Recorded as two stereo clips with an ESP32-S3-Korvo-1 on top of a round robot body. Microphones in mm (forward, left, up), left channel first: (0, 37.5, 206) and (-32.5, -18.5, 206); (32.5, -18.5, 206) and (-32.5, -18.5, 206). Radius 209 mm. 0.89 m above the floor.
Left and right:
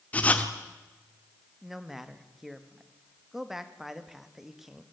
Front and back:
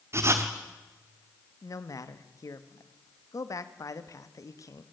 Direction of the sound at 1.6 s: 35° right.